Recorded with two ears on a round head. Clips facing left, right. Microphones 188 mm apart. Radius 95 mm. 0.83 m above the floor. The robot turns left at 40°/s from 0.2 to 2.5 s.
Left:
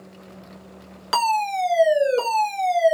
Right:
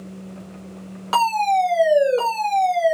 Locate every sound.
1.1 s a fire alarm: 140° left, 1.8 m; by 3.0 s 85° left, 1.8 m